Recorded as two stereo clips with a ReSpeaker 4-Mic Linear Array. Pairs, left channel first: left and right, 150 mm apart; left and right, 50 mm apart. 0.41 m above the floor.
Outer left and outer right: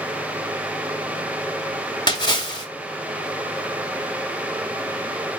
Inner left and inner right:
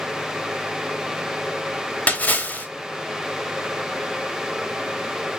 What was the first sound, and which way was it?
A splash, 30° left (ahead or behind).